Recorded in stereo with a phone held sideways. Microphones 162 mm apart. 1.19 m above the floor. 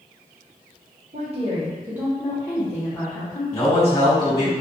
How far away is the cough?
I don't hear a cough.